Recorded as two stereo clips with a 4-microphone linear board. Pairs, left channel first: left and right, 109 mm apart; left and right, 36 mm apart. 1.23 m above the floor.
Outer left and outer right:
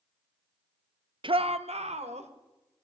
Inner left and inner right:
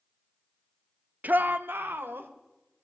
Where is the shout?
50° right (ahead or behind), 0.6 m; by 2.3 s 85° right, 1.8 m.